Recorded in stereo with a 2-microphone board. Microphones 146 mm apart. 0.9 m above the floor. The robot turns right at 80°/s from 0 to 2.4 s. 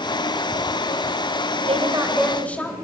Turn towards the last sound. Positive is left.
turn(degrees=10)